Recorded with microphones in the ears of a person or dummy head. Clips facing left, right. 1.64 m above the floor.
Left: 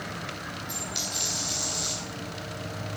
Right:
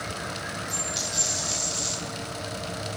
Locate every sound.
0.7 s a dropped coin: 20° left (ahead or behind), 4.5 m